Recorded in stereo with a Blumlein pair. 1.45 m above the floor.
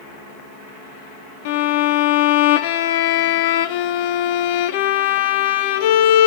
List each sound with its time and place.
1.4 s a violin: 50° left, 0.8 m